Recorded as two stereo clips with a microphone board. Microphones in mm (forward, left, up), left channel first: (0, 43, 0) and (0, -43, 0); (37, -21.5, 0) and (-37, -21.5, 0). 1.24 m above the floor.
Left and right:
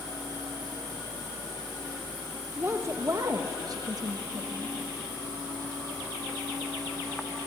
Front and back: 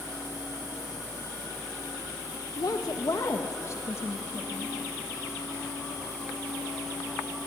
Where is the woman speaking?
25° right, 1.0 m; by 4.8 s 60° right, 1.9 m.